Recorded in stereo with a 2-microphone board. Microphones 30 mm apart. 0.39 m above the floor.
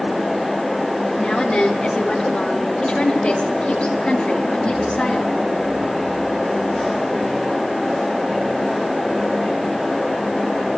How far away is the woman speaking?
About 7 m.